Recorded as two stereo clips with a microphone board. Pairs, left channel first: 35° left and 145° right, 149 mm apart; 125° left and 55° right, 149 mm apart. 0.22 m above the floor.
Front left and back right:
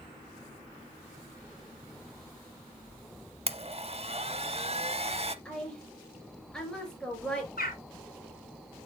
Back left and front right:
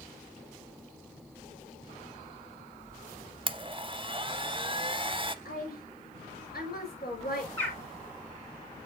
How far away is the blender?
About 0.6 m.